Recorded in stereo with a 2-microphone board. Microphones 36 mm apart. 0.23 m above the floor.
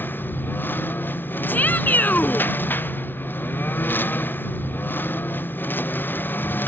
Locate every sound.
0.0 s a lawn mower: 65° left (ahead or behind)
1.5 s a shout: 60° left (ahead or behind)